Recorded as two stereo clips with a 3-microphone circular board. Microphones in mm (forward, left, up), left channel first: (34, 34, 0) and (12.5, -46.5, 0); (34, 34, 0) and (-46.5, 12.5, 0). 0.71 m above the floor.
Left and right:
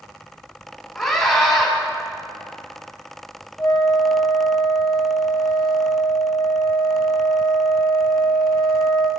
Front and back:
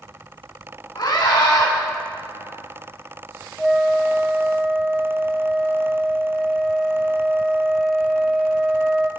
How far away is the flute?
About 1.4 m.